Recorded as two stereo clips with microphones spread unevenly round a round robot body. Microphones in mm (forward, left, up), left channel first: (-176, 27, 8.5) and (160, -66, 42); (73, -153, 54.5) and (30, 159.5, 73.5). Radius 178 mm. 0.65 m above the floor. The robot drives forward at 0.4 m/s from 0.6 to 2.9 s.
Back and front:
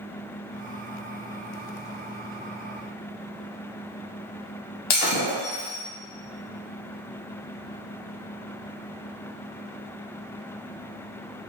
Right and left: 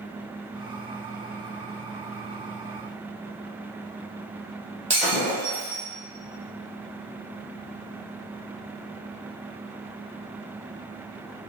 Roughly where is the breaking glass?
Behind.